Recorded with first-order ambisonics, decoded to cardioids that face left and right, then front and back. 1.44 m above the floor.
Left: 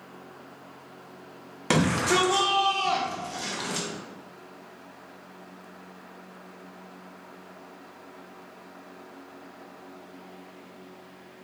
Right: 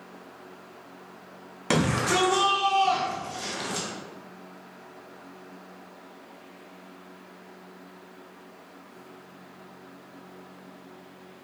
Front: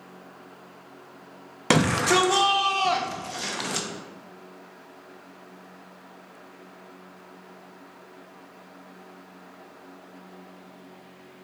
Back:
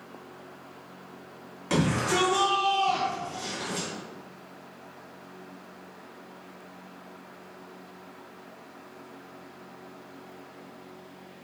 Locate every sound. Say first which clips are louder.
1.7 s a shout: left 1 dB, front 6 dB; 5° left, 0.5 m